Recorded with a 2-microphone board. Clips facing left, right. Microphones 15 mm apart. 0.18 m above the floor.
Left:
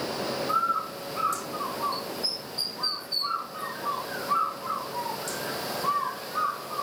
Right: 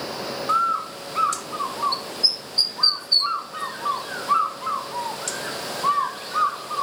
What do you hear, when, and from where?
0.5 s a bird: 60° right (ahead or behind), 1.7 m